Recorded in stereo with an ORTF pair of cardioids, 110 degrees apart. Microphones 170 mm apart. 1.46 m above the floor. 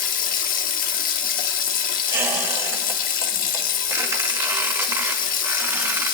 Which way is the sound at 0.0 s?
65° left.